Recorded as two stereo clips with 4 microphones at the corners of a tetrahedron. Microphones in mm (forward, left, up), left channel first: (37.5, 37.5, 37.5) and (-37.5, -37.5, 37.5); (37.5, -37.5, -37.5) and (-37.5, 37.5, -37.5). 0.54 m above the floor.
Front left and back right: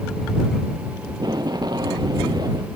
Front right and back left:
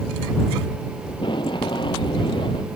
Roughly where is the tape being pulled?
Right.